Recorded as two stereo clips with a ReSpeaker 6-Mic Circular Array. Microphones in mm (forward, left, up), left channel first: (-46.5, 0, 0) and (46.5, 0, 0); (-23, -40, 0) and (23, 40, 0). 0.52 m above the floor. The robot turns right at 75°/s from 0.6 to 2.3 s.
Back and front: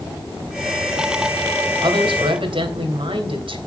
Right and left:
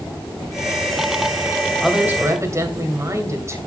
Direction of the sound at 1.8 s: 35° right.